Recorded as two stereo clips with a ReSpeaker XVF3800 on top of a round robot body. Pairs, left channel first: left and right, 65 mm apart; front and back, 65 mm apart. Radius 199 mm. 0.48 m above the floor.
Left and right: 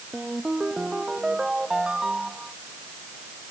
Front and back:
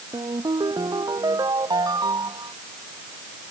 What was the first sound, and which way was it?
A ringtone, 170° right.